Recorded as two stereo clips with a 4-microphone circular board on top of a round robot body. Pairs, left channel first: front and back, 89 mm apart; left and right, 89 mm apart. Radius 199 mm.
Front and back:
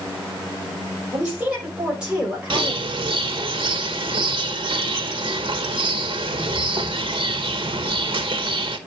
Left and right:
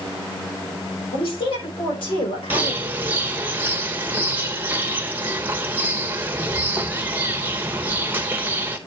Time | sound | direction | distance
1.1 | a woman speaking | 100° left | 6 m
2.5 | a bird | 160° right | 1.1 m